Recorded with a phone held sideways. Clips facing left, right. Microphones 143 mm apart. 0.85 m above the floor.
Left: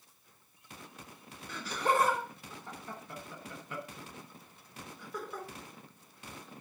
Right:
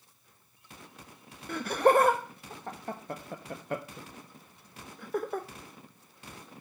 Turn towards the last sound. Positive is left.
turn(degrees=-55)  # may be behind; listen again after turning